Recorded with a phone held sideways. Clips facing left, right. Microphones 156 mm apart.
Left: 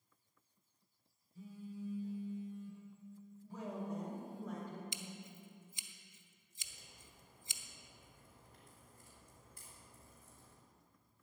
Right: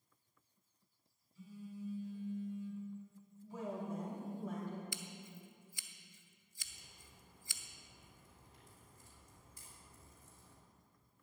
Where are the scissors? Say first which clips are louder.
Even; 20° left (ahead or behind), 0.7 m.